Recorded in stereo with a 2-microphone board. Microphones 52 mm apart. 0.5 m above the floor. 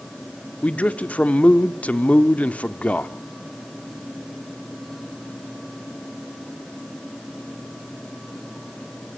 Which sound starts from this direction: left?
A man speaking, at 0.6 s.